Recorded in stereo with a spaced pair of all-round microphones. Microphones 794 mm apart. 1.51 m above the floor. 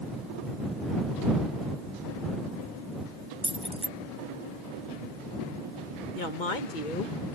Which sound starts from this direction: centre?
Keys jangling, at 3.4 s.